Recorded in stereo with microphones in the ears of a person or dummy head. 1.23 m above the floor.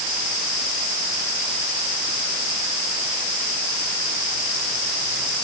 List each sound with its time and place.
Only background noise.